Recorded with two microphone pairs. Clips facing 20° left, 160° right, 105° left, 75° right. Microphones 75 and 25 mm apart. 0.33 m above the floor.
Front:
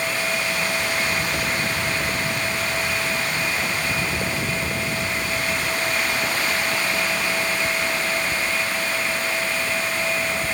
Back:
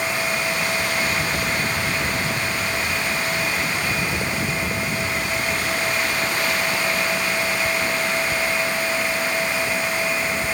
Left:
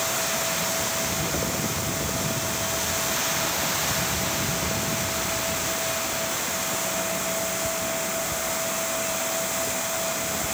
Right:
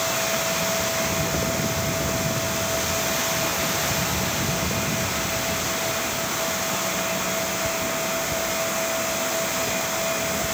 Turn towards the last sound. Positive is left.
No sound to turn to.